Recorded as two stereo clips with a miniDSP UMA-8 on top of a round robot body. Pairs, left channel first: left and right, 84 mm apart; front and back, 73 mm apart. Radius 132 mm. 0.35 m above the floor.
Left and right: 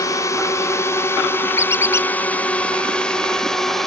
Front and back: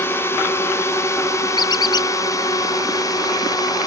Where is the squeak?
30° left.